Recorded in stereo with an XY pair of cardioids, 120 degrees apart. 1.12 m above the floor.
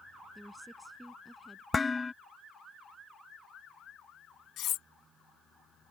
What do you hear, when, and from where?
0.3 s a woman speaking: 10° right
1.7 s dishes clattering: 15° left
4.6 s cutlery clinking: 65° left